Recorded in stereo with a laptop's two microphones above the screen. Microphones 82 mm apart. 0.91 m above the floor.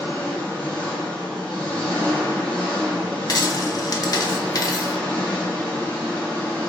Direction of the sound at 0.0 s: 15° left (ahead or behind).